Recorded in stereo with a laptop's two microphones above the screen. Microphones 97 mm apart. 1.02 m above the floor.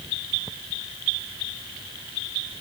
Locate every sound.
Only background noise.